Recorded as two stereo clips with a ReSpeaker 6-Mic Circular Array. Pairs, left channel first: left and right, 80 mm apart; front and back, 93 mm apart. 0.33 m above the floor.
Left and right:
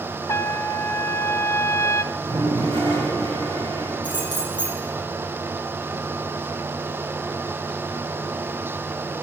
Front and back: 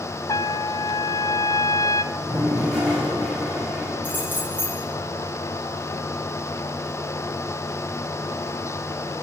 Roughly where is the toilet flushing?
Right.